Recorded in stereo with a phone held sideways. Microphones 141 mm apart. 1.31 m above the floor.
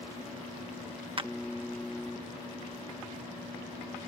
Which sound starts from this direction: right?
A clap, at 1.2 s.